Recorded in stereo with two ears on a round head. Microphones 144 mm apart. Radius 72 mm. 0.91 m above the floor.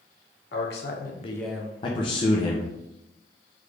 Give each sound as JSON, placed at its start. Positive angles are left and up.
{"t": 0.5, "sound": "a man speaking", "side_deg": 70, "distance_m": 1.2}
{"t": 1.8, "sound": "a man speaking", "side_deg": 30, "distance_m": 0.6}